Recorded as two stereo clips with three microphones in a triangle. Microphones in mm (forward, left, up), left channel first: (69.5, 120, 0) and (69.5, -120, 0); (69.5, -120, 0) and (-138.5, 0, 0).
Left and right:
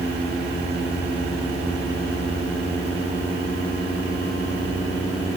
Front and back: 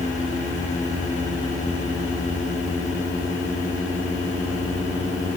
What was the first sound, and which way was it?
Only background noise.